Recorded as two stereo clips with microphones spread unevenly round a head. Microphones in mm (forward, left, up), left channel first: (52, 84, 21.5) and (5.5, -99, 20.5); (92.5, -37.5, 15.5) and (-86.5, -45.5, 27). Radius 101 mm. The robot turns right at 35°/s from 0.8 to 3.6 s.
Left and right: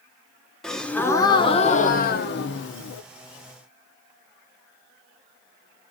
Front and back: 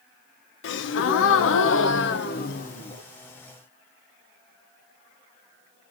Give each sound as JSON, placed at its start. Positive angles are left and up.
{"t": 0.6, "sound": "a gasp", "azimuth_deg": -10, "distance_m": 0.6}